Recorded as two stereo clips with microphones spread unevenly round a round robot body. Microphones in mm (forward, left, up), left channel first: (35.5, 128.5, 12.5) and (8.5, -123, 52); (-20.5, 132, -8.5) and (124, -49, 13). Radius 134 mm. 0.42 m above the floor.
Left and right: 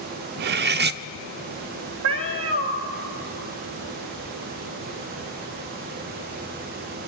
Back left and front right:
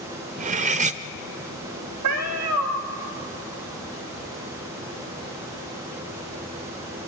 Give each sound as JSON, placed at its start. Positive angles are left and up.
{"t": 0.4, "sound": "cutlery clinking", "azimuth_deg": -85, "distance_m": 0.5}
{"t": 2.0, "sound": "a cat meowing", "azimuth_deg": -70, "distance_m": 1.8}